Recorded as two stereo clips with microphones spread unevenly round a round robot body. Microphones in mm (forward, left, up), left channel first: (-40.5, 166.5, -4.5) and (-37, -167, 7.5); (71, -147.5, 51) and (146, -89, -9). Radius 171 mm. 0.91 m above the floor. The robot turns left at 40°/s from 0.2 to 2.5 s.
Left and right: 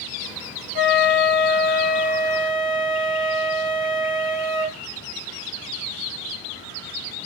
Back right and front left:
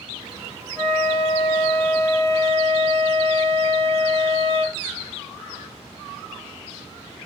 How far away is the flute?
About 0.8 m.